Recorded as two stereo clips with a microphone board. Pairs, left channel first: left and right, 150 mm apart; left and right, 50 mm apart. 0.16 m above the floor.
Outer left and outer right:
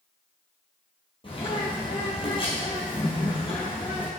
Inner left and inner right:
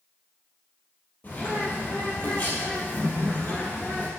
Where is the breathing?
I don't hear breathing.